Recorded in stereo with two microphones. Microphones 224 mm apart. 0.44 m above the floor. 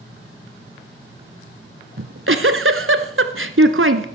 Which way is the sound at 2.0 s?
75° right (ahead or behind).